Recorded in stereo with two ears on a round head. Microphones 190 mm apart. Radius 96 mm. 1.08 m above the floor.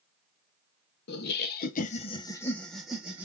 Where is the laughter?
50° left (ahead or behind), 0.7 m; by 3.2 s 10° right (ahead or behind), 1.0 m.